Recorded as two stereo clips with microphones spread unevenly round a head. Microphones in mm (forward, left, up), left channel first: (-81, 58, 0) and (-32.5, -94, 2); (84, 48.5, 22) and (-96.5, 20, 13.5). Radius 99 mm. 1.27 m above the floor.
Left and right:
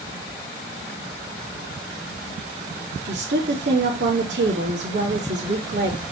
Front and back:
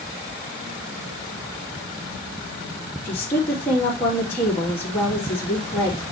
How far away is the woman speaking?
About 3 m.